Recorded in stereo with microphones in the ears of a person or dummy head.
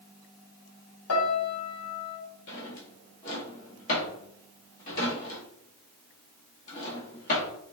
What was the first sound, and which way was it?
A piano, 80° left.